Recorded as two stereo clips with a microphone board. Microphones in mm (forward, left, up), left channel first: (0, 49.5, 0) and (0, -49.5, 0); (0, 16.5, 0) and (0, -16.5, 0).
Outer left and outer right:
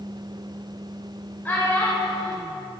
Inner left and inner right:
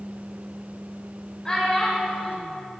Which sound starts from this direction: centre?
A child speaking, at 1.4 s.